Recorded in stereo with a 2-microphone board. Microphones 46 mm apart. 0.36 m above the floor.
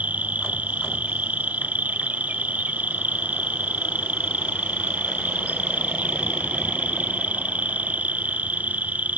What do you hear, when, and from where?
0.0 s an insect: 35° right (ahead or behind)